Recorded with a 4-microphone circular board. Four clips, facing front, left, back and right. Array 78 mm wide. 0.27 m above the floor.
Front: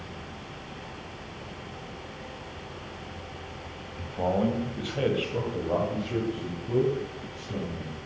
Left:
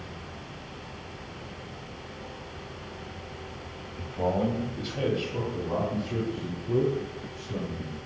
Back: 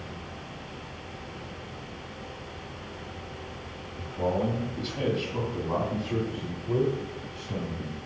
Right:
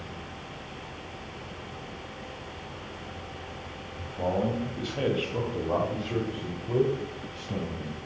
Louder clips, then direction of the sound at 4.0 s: Left 1 dB, front 1 dB; 20° left.